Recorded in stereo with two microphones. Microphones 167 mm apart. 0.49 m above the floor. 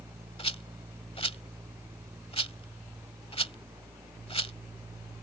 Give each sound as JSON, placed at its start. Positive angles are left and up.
{"t": 0.4, "sound": "a rattle", "side_deg": 35}